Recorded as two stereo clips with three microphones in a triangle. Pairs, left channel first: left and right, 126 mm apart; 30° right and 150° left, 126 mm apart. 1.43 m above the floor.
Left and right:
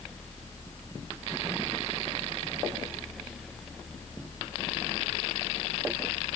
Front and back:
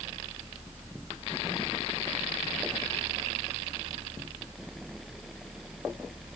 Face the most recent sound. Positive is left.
No sound to turn to.